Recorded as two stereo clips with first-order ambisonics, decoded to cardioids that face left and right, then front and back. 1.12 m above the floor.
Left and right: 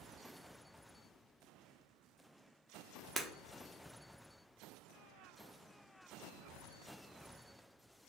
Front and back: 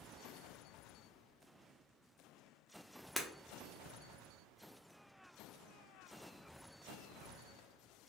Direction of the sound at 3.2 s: 110° right.